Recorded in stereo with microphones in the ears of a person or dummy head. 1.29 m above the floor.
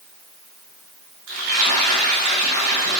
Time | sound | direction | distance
1.3 | frying | 80° right | 3.5 m